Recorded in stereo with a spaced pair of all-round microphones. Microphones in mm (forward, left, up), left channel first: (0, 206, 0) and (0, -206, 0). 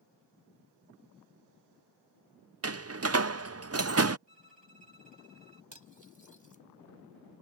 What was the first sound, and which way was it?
A door slam, 35° right (ahead or behind).